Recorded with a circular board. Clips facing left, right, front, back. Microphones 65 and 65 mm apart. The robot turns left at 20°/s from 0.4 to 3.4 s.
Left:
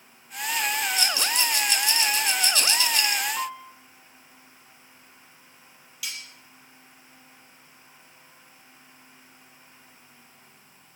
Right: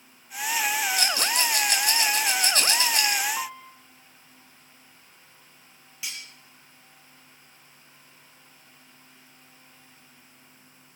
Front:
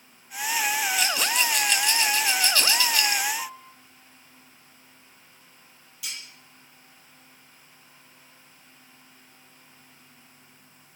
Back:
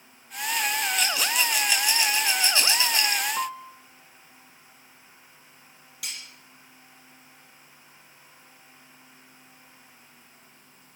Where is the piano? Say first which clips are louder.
Left 2 dB, back 6 dB; 175° right, 0.9 m.